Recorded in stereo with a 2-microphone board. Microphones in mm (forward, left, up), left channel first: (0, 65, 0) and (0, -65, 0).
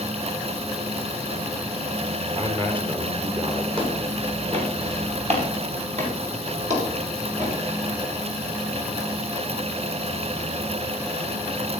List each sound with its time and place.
2.4 s a man speaking: 40° right (ahead or behind), 4 m
3.8 s footsteps: 50° right (ahead or behind), 7.5 m; by 7.5 s 65° right (ahead or behind), 8.5 m